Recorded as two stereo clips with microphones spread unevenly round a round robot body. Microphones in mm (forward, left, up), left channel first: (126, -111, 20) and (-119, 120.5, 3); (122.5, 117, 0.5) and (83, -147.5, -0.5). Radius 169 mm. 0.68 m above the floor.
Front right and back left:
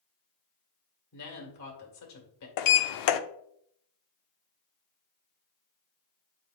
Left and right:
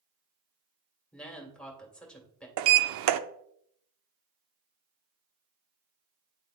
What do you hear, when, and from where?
1.1 s a woman speaking: 5° right, 2 m
2.6 s a sliding door: 80° right, 0.5 m